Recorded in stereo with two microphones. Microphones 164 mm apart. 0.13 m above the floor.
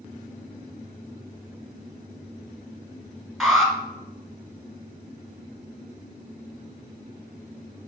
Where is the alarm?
Centre (ahead or behind), 1.4 m.